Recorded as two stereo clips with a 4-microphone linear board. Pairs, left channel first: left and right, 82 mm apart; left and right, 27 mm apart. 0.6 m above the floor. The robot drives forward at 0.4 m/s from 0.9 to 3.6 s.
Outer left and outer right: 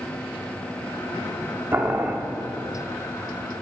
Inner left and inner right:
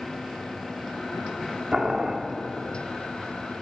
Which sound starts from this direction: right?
Boiling, at 1.7 s.